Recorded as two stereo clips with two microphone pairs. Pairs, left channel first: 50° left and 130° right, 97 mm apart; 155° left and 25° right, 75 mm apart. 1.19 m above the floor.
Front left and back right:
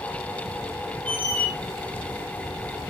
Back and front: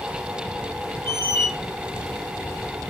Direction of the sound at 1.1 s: 15° right.